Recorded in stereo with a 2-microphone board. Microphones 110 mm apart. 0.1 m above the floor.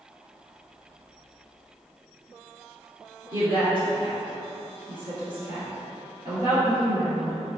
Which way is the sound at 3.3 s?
40° right (ahead or behind).